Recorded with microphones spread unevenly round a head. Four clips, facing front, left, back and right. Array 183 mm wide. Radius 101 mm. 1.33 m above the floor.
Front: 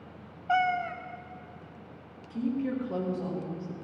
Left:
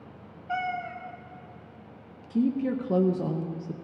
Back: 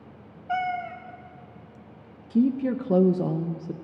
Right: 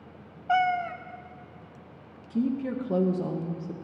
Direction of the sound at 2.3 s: 170° left.